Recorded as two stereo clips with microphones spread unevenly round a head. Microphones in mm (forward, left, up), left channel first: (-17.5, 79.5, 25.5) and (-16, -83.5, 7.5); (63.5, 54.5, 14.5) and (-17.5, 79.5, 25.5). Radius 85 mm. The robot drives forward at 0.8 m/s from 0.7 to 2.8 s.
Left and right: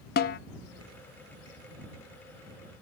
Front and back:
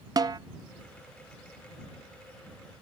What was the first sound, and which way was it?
A snare drum, 120° left.